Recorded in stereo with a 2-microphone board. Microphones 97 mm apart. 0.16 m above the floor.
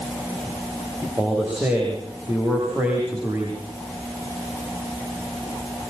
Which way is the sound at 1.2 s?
20° right (ahead or behind).